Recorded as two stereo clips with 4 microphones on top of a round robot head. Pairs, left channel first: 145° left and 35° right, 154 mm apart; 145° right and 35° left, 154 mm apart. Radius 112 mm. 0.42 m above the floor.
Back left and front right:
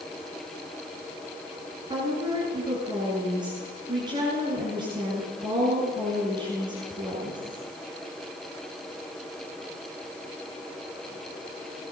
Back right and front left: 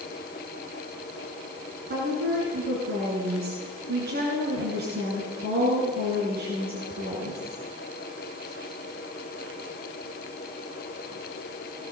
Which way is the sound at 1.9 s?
25° left.